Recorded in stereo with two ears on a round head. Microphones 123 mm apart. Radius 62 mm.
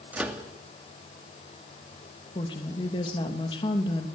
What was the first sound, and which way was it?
A microwave, 10° right (ahead or behind).